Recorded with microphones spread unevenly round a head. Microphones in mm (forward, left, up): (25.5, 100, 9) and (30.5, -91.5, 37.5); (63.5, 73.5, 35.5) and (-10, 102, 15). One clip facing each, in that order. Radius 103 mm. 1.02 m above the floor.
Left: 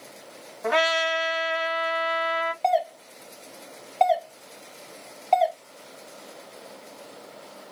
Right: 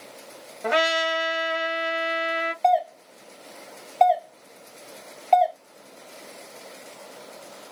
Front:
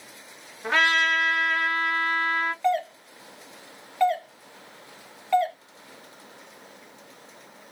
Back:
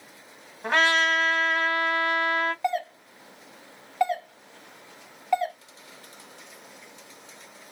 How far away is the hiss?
No hiss in this recording.